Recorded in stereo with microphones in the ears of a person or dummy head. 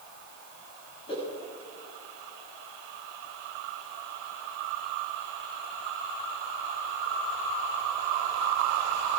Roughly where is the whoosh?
Left.